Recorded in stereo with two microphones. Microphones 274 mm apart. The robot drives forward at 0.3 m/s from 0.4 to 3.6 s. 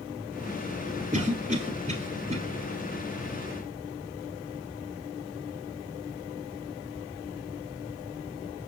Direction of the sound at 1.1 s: 30° right (ahead or behind).